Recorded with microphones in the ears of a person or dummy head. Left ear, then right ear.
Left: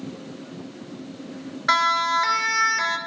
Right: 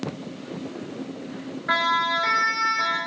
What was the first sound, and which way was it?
A siren, 80° left.